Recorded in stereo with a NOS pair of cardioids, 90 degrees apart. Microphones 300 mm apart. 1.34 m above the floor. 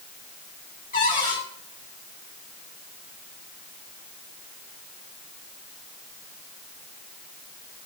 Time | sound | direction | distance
0.9 | a cupboard door | 30° left | 4 m